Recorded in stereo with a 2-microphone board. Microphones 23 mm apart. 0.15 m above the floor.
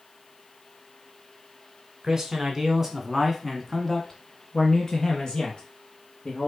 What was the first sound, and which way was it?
A man speaking, 30° right (ahead or behind).